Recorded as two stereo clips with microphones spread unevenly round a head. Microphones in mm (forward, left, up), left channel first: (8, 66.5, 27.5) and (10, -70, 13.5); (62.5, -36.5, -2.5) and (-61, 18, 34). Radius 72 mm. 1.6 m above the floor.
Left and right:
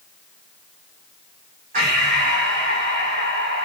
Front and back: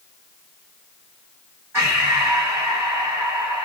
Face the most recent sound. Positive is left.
turn(degrees=-135)